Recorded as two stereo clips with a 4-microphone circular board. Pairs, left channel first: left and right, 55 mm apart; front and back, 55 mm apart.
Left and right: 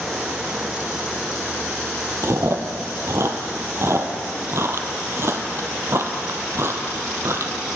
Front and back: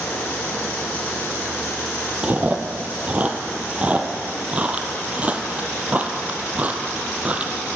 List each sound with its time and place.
2.2 s chewing: 115° right, 0.6 m